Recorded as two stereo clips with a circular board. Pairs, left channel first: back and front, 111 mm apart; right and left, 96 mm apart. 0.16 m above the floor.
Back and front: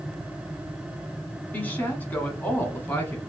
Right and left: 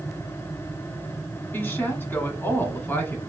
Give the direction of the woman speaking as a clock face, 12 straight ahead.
4 o'clock.